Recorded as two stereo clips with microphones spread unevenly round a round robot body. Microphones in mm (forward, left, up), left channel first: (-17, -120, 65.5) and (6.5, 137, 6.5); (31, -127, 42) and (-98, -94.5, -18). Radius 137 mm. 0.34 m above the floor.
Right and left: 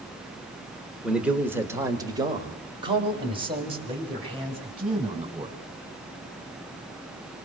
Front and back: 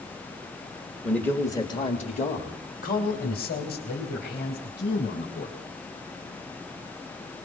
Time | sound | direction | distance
1.0 | a man speaking | 130° left | 1.4 m